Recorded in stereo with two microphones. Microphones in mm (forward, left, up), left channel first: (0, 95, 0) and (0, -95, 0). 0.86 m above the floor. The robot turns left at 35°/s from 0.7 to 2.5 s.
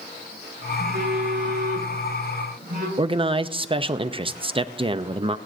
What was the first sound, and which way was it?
A phone buzzing, 60° right.